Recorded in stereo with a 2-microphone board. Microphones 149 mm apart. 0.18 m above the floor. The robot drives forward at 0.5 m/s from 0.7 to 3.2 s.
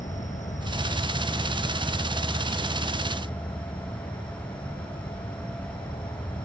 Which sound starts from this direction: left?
An insect, at 0.0 s.